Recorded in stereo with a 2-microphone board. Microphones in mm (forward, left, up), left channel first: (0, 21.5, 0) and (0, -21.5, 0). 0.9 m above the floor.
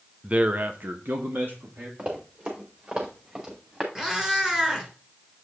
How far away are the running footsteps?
About 4.5 m.